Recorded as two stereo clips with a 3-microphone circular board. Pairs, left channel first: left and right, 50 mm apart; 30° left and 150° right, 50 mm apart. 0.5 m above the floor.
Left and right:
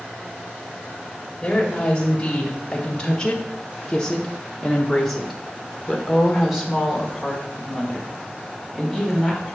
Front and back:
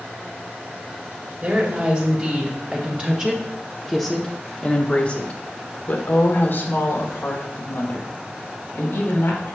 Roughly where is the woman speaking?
Behind.